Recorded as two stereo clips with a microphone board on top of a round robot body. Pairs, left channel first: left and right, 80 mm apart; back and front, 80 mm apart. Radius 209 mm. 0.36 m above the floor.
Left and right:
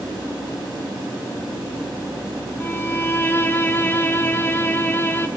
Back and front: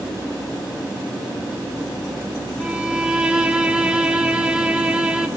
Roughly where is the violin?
Ahead left.